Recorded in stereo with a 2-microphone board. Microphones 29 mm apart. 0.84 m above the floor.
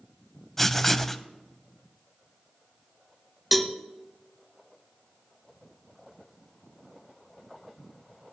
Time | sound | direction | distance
0.6 | writing | 10° left (ahead or behind) | 0.7 m
3.5 | a cowbell | 5° right (ahead or behind) | 0.7 m